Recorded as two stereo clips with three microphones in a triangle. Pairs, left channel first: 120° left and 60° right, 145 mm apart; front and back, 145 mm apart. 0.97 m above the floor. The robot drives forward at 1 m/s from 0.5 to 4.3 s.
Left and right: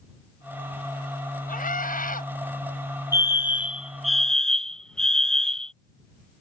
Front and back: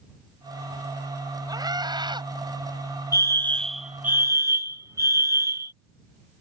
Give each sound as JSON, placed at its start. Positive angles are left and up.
{"t": 1.5, "sound": "a scream", "azimuth_deg": 120}
{"t": 3.1, "sound": "a fire alarm", "azimuth_deg": -15}